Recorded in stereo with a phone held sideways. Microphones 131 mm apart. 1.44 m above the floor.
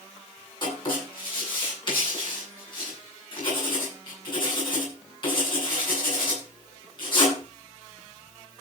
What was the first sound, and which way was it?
Writing, 35° left (ahead or behind).